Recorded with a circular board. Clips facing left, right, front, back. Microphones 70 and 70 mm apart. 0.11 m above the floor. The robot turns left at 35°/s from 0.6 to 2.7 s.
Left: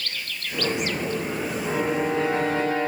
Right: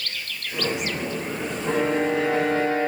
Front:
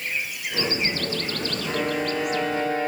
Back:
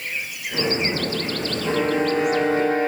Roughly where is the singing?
I don't hear singing.